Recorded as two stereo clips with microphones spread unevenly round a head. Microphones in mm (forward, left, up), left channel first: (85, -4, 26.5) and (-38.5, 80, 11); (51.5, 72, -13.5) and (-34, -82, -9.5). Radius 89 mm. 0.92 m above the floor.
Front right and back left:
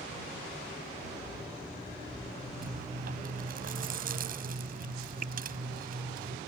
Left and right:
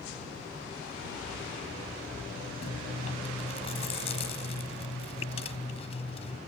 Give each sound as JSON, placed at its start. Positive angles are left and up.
{"t": 2.6, "sound": "chewing", "azimuth_deg": 120}